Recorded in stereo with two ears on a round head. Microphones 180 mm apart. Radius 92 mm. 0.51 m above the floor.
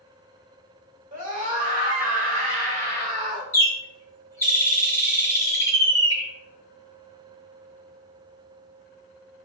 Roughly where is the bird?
Centre.